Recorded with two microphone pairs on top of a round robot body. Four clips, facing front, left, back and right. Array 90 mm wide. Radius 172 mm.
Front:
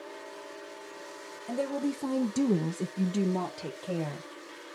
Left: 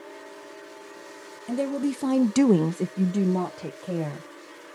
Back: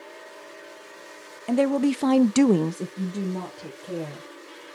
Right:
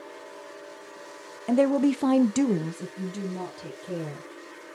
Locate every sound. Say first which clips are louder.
1.5 s a woman speaking: right 5 dB, back 10 dB; 150° right, 0.9 m; by 4.3 s 65° left, 1.5 m